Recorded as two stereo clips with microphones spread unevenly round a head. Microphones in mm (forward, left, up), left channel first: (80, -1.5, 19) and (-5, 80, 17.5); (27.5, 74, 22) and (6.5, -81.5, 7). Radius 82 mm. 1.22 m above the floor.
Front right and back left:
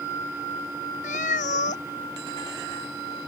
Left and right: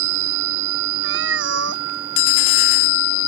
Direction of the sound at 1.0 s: 95° right.